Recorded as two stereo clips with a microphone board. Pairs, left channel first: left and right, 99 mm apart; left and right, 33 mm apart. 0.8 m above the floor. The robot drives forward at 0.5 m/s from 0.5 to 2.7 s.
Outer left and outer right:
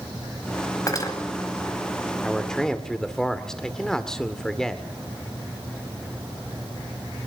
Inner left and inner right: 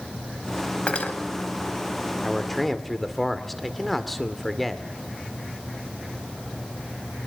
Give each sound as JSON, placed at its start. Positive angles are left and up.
{"t": 0.9, "sound": "cutlery clinking", "side_deg": 35, "distance_m": 3.0}
{"t": 2.2, "sound": "a man speaking", "side_deg": 5, "distance_m": 1.7}